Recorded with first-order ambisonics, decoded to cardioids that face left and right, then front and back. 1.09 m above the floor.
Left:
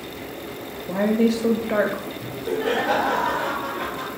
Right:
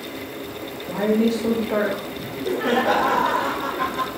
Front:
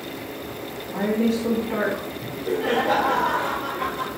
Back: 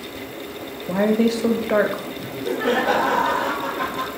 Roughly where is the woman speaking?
Behind.